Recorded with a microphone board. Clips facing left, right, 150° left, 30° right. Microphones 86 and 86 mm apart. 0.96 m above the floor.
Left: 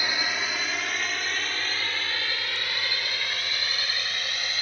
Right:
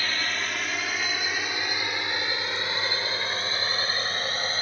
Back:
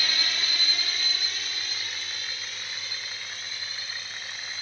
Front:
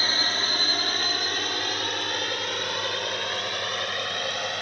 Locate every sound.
0.0 s a drone: 15° left; by 4.6 s 35° right